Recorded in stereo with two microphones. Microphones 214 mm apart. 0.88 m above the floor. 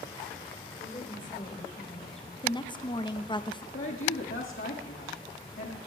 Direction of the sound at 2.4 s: 20° left (ahead or behind).